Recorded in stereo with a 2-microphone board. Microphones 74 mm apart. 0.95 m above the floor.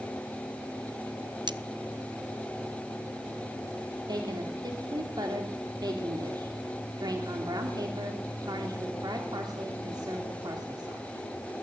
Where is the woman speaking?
70° right (ahead or behind), 2.5 m.